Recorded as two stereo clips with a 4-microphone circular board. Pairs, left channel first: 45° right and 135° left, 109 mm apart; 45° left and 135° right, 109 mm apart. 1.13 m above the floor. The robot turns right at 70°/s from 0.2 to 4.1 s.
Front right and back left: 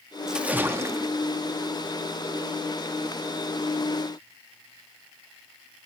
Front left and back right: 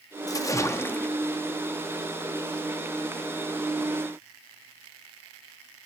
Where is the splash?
55° left, 0.6 m; by 1.2 s 115° left, 0.6 m.